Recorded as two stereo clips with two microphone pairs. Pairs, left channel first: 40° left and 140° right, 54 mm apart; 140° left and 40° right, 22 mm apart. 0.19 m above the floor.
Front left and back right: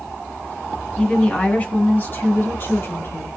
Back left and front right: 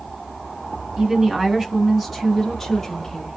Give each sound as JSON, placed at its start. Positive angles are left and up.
{"t": 1.0, "sound": "a woman speaking", "azimuth_deg": -30, "distance_m": 1.1}